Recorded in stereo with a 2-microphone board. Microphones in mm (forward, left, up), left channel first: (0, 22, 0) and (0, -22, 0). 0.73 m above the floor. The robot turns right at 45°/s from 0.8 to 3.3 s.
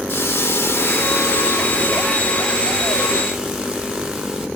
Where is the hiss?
80° left, 0.9 m; by 4.5 s 170° right, 0.9 m.